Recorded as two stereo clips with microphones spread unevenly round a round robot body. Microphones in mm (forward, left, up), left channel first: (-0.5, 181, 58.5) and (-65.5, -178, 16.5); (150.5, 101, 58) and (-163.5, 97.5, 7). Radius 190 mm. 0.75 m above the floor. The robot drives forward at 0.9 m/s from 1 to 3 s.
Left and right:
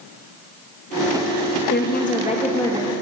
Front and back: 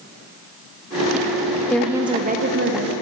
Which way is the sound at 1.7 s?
100° left.